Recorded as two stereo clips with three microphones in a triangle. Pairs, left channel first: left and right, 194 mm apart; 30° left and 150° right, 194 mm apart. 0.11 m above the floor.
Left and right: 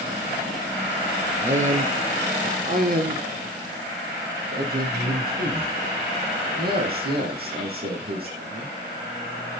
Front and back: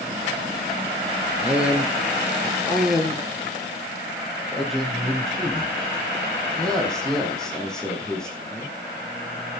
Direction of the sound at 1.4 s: 70° right.